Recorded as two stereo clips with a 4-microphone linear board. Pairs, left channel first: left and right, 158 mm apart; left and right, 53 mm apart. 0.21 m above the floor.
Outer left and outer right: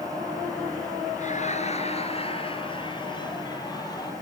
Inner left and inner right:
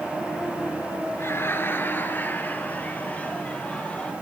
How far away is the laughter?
About 3.5 m.